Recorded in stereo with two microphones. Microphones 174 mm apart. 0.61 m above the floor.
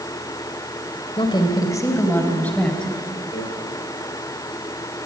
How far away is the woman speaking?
About 2.5 m.